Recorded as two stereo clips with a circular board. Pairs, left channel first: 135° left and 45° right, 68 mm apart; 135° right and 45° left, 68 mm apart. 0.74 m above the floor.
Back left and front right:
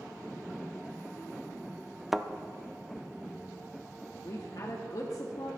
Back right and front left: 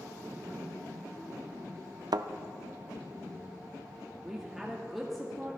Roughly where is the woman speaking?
Behind left.